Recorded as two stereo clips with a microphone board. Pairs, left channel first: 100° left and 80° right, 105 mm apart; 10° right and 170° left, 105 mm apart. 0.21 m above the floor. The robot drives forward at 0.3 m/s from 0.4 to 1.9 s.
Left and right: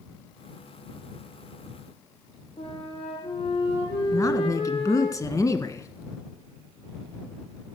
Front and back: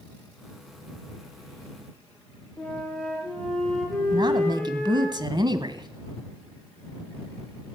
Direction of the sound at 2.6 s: 70° left.